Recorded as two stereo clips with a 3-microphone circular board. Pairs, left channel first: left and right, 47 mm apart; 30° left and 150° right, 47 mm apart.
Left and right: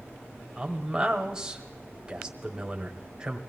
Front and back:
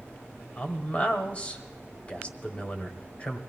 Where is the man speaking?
20° right, 1.5 m.